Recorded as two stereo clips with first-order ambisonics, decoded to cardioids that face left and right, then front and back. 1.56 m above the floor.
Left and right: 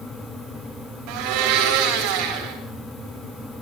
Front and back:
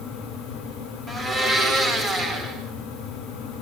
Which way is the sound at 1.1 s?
105° right.